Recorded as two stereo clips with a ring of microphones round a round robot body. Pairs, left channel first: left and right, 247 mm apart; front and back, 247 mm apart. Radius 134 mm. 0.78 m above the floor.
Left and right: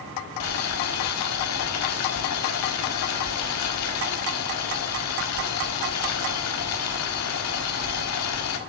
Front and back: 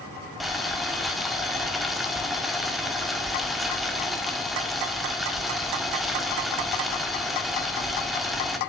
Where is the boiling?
90° left, 1.7 m.